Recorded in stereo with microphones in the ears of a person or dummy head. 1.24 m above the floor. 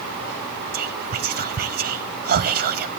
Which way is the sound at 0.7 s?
45° right (ahead or behind).